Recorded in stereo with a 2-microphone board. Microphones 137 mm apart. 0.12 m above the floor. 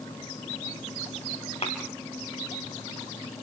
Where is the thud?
50° left (ahead or behind), 6 m.